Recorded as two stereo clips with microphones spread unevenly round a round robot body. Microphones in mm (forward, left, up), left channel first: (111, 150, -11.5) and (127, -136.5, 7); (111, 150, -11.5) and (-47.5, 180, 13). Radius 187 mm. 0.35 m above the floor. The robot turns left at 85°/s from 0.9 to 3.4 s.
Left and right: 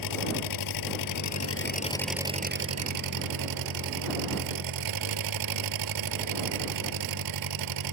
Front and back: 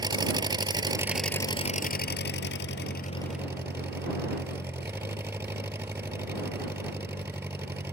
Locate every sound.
0.0 s an engine running: 105° left; by 7.9 s 110° right